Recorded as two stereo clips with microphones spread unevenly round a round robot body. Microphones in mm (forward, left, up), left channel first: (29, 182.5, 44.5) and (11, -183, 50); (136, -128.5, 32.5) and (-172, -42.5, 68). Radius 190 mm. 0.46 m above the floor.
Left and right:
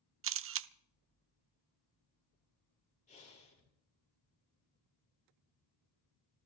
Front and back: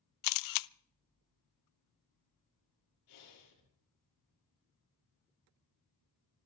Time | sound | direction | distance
0.2 | a camera shutter | 35° right | 0.6 m
3.1 | breathing | 15° left | 6.5 m